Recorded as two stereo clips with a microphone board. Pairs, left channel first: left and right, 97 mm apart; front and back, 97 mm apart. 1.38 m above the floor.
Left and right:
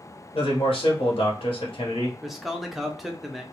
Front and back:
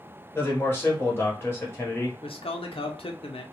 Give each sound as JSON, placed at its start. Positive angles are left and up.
{"t": 0.3, "sound": "a man speaking", "azimuth_deg": 65, "distance_m": 1.1}
{"t": 2.2, "sound": "a man speaking", "azimuth_deg": -5, "distance_m": 0.6}